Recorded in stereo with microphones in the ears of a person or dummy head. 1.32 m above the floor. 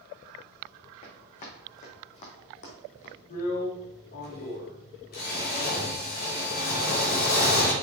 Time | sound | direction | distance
1.0 | running footsteps | 35° left (ahead or behind) | 3.5 m
3.3 | a drill | 50° left (ahead or behind) | 1.9 m